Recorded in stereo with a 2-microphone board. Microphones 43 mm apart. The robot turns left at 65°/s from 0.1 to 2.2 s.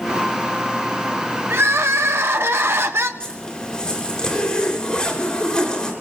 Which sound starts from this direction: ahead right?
Crying, at 1.5 s.